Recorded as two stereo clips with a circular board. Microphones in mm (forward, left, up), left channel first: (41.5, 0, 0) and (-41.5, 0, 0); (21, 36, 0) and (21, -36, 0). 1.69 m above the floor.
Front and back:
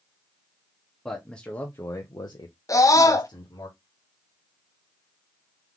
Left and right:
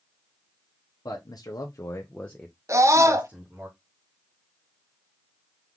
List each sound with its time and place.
1.1 s a man speaking: 90° left, 0.9 m; by 3.7 s 30° right, 1.2 m
2.7 s a scream: 45° right, 0.8 m